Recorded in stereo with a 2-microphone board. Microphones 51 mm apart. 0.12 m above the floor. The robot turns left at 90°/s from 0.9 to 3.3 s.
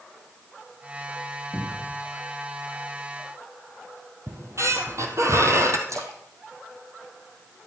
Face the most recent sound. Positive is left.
turn(degrees=-80)